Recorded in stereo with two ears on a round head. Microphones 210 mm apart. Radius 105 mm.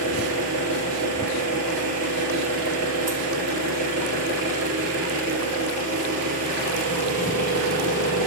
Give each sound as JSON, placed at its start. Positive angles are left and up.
{"t": 0.0, "sound": "an engine running", "side_deg": -90, "distance_m": 3.0}